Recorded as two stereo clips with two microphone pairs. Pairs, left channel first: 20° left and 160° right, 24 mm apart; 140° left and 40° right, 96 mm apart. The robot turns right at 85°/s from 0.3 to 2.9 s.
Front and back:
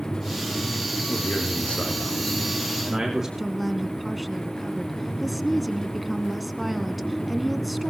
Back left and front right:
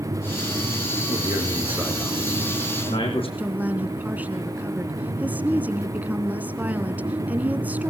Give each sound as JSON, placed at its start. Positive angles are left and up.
{"t": 1.1, "sound": "a man speaking", "azimuth_deg": -20, "distance_m": 5.0}
{"t": 3.4, "sound": "a woman speaking", "azimuth_deg": -70, "distance_m": 1.1}